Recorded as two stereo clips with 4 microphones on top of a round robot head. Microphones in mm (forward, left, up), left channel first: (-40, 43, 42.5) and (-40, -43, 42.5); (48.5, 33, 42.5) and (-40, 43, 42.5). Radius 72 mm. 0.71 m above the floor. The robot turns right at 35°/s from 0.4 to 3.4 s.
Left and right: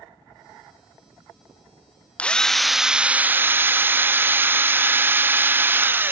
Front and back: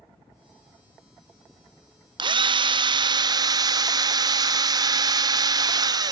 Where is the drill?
165° left, 0.6 m; by 6.1 s 155° right, 0.6 m.